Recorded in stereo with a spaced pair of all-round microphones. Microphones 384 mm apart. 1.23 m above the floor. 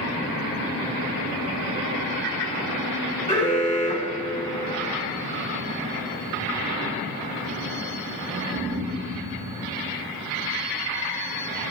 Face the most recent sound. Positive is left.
turn(degrees=15)  # may be behind; listen again after turning